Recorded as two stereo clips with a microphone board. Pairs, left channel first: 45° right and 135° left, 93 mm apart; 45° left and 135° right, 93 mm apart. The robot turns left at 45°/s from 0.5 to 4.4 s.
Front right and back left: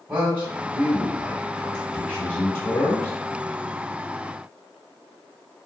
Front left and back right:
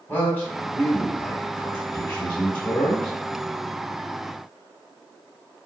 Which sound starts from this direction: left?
A man speaking, at 0.1 s.